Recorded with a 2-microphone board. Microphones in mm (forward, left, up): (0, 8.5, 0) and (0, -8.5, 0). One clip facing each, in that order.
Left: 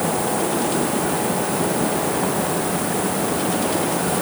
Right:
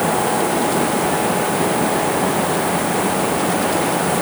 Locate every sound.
Only background noise.